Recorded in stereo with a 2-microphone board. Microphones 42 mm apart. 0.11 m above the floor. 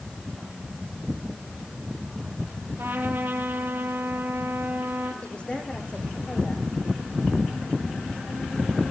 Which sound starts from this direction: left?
A woman speaking, at 5.2 s.